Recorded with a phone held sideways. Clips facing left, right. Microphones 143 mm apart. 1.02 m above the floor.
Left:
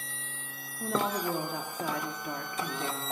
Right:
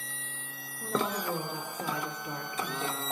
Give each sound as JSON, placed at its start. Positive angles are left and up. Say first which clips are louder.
{"t": 0.8, "sound": "a woman speaking", "louder": "left 1 dB", "side_deg": 75, "distance_m": 2.0}